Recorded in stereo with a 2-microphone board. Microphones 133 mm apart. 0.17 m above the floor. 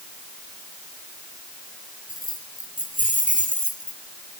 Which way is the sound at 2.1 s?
75° left (ahead or behind).